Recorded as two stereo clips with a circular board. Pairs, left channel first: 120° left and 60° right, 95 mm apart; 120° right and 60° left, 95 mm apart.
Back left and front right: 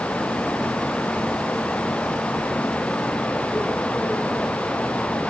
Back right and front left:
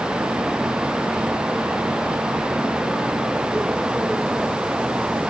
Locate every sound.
Only background noise.